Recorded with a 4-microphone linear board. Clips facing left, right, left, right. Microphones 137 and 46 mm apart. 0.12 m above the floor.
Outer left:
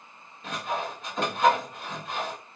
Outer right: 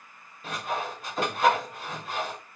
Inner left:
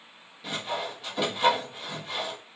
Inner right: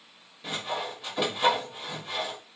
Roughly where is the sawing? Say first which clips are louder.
Even, even; centre.